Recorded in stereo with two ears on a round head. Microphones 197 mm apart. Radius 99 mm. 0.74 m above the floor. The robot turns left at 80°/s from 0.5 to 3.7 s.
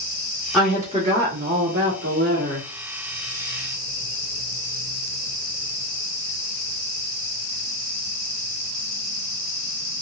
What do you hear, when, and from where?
0.5 s a woman speaking: 5° left, 1.1 m; by 2.7 s 165° right, 1.1 m